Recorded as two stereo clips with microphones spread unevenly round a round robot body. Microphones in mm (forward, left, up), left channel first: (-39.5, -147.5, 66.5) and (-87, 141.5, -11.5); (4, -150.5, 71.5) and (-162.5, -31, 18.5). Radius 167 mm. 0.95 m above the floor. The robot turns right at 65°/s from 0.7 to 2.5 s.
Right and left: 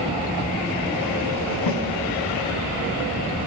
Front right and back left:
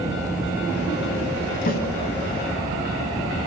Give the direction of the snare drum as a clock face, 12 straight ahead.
3 o'clock.